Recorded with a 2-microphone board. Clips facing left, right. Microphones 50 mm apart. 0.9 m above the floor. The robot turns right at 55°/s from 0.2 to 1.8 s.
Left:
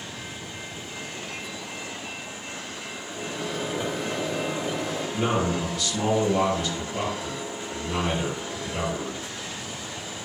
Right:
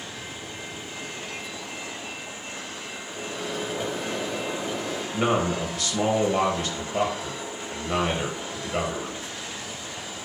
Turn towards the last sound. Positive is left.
turn(degrees=-25)  # may be behind; listen again after turning